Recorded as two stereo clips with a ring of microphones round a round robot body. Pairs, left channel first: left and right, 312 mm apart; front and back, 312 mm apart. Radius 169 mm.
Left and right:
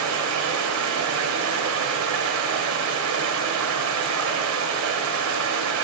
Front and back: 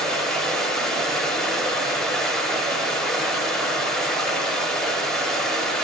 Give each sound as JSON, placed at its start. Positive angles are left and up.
{"t": 0.0, "sound": "running water", "azimuth_deg": -90, "distance_m": 1.4}